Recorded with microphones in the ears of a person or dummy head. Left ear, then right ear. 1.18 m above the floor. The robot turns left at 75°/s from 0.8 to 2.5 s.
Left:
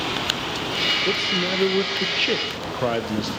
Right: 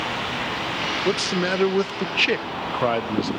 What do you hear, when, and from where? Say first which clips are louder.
1.1 s a man speaking: left 1 dB; 30° right, 0.8 m; by 3.3 s 140° right, 0.8 m